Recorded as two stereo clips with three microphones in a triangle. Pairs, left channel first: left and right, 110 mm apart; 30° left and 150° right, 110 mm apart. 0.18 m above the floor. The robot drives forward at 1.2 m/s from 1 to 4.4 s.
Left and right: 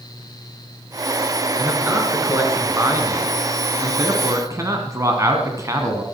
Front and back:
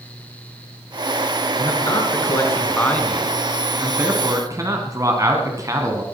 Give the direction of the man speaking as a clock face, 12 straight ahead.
1 o'clock.